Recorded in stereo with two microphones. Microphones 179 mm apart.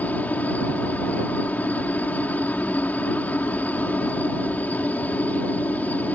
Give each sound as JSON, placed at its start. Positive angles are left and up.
{"t": 0.0, "sound": "a helicopter", "side_deg": 10}